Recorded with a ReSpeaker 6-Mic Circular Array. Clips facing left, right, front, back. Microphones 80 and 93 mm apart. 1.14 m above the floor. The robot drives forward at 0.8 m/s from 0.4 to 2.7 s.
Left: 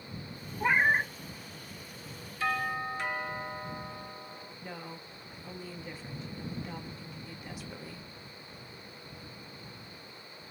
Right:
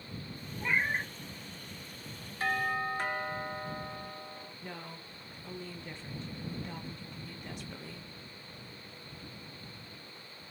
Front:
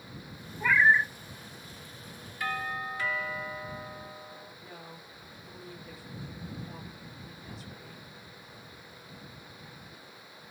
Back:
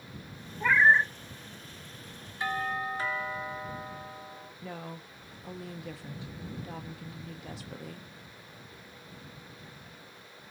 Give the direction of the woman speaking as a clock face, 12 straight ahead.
6 o'clock.